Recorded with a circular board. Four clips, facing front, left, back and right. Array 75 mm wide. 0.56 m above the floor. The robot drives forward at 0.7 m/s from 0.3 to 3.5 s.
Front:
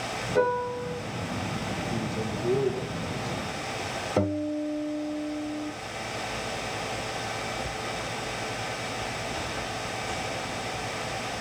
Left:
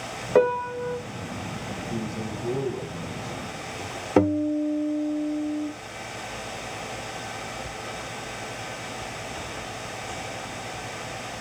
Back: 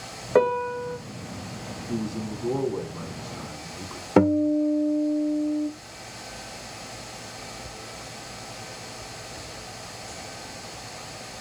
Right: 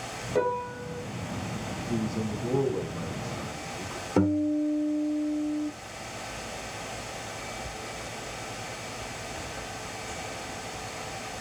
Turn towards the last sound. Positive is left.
turn(degrees=155)